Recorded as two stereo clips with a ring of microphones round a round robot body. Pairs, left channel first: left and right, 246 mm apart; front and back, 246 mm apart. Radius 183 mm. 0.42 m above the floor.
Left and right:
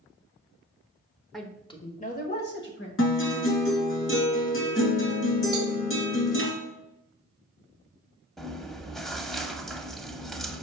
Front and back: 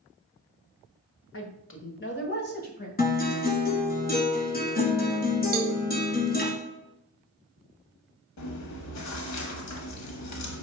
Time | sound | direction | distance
1.3 | a woman speaking | straight ahead | 1.4 m
3.0 | a guitar | 55° left | 2 m
5.5 | a cowbell | 155° right | 0.8 m
8.4 | chewing | straight ahead | 1.0 m